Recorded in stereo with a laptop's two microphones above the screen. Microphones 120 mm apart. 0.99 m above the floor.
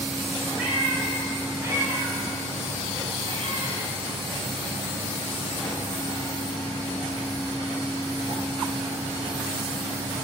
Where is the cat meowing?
10° right (ahead or behind), 3 m; by 7.7 s 40° right (ahead or behind), 3.5 m.